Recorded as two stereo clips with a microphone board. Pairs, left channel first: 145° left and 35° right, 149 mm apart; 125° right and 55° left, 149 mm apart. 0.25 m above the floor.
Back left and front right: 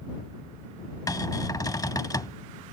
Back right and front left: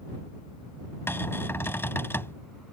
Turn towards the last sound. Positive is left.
turn(degrees=180)